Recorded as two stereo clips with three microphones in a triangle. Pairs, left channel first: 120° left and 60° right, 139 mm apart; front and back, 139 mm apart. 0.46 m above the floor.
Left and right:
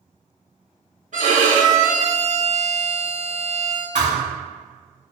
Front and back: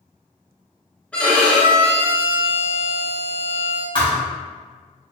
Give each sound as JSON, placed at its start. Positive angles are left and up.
{"t": 1.1, "sound": "a violin", "azimuth_deg": -80, "distance_m": 1.5}
{"t": 4.0, "sound": "a thud", "azimuth_deg": -55, "distance_m": 1.5}